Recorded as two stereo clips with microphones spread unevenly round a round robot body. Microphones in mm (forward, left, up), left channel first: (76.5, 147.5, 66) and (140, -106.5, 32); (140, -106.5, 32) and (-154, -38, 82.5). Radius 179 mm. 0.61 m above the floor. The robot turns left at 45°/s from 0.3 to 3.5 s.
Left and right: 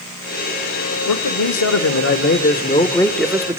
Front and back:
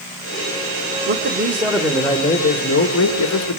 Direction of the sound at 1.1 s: 110° left.